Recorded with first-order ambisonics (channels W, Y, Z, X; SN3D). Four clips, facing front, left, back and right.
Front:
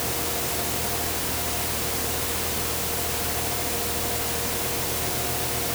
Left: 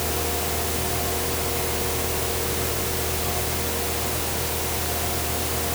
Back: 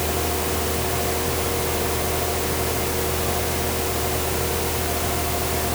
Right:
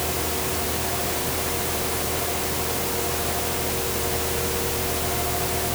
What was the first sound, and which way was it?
Only background noise.